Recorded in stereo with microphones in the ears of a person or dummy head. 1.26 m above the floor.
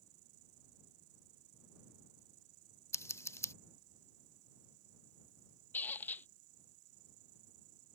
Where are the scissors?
15° left (ahead or behind).